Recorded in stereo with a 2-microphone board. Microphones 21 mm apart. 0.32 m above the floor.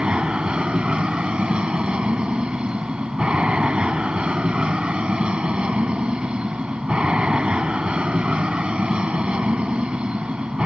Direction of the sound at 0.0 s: 55° right (ahead or behind).